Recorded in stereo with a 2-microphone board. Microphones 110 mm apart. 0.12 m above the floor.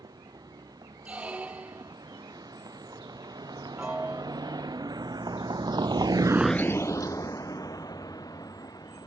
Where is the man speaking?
I don't hear a man speaking.